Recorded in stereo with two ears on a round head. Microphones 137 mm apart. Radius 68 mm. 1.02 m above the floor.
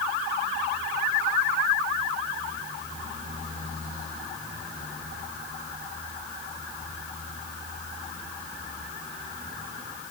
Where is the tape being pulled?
I don't hear tape being pulled.